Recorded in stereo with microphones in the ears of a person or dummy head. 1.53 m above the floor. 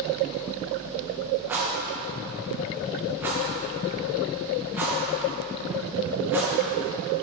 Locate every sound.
1.5 s a rattle: 10° right (ahead or behind), 1.4 m